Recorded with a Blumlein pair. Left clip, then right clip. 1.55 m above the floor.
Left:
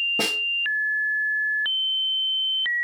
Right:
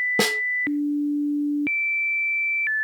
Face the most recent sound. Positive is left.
turn(degrees=-70)